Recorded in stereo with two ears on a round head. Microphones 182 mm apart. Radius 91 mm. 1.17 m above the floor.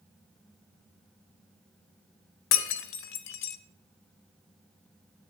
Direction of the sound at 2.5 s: 65° left (ahead or behind).